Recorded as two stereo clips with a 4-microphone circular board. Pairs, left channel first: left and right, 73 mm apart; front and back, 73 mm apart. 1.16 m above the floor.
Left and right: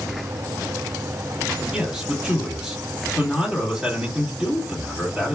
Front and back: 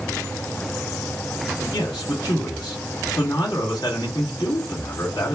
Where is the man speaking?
10° right, 2 m.